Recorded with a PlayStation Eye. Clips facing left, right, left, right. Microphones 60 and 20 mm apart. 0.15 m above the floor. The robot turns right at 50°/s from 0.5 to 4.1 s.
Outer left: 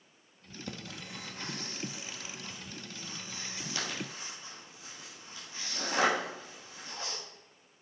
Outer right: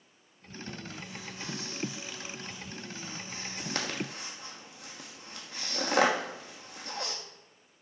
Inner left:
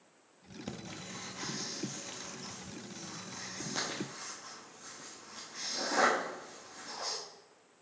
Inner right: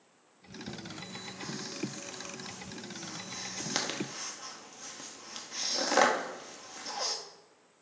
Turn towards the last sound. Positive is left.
turn(degrees=-65)  # may be behind; listen again after turning